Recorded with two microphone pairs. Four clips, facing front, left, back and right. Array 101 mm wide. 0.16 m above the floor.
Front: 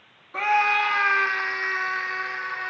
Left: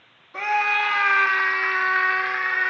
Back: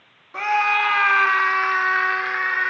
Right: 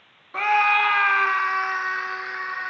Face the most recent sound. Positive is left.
turn(degrees=160)